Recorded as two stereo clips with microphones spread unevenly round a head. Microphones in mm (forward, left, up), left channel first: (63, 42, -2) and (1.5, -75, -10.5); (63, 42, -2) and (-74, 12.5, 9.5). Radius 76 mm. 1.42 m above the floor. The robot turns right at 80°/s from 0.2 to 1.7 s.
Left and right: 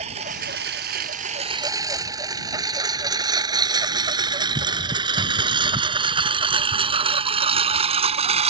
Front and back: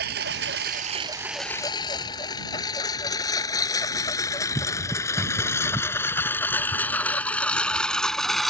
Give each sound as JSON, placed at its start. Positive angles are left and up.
{"t": 0.0, "sound": "a lawn mower", "azimuth_deg": -170}